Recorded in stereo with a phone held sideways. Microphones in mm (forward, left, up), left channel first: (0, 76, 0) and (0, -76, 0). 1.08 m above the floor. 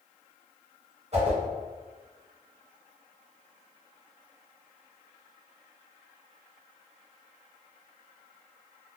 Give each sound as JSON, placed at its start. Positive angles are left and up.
{"t": 1.1, "sound": "a whoosh", "side_deg": -50, "distance_m": 1.7}